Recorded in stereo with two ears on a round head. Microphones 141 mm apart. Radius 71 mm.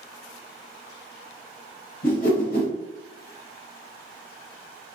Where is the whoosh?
60° left (ahead or behind), 1.0 m.